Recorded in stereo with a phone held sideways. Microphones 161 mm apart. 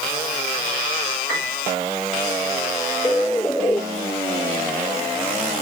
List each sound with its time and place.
1.3 s a piano: 80° right, 6 m
3.0 s a bird: 10° left (ahead or behind), 0.6 m